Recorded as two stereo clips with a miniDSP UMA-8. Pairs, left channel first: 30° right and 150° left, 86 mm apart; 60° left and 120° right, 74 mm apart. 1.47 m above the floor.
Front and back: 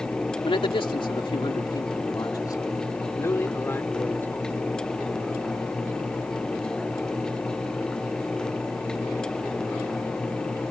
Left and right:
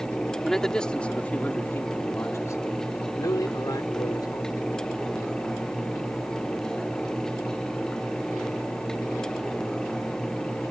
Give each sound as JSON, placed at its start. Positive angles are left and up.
{"t": 0.5, "sound": "a man speaking", "azimuth_deg": -25}